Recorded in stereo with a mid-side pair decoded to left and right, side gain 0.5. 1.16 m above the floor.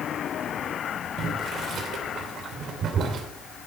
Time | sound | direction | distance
1.2 | boiling | 55° right | 2.5 m